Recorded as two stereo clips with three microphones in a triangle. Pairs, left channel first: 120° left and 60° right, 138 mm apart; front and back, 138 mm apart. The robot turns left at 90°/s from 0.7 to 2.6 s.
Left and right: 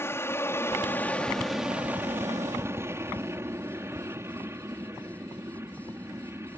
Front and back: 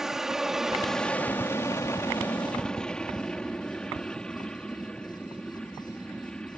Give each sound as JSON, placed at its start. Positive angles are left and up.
{"t": 0.0, "sound": "an aircraft", "azimuth_deg": 100}